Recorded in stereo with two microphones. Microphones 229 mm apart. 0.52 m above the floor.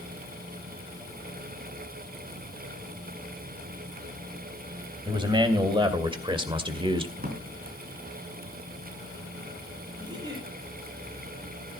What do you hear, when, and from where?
5.0 s a man speaking: 20° right (ahead or behind), 3 m
7.2 s a drawer: 40° right (ahead or behind), 3.5 m
10.0 s a giggle: 20° right (ahead or behind), 9 m